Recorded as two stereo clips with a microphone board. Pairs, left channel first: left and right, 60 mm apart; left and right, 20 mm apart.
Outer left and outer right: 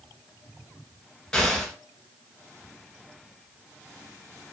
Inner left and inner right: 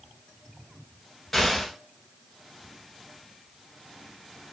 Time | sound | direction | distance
1.3 | an explosion | 5° left (ahead or behind) | 1.1 m